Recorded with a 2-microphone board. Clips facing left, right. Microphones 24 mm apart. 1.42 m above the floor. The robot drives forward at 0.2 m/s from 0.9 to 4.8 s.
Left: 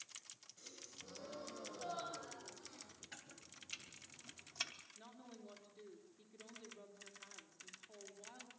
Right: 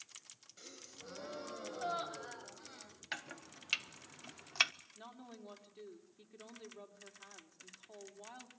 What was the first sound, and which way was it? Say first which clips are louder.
A gasp: right 4 dB; 40° right (ahead or behind).